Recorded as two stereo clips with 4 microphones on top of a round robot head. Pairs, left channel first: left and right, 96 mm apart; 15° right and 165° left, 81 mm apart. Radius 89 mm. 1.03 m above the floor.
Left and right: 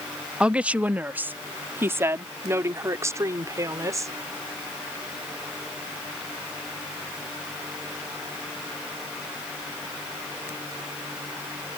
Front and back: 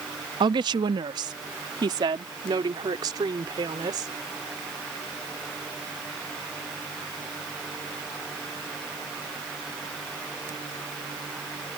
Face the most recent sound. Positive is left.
turn(degrees=-145)